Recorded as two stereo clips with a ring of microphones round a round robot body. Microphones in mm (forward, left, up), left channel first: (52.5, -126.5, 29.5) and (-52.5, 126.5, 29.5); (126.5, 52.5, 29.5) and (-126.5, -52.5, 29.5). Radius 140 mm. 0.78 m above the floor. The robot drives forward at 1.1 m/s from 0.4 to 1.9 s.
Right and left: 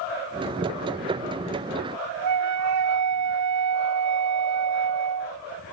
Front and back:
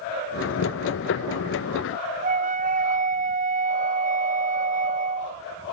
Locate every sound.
2.2 s a flute: 140° left